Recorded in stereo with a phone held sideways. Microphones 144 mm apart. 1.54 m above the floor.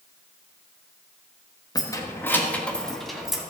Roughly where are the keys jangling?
Left.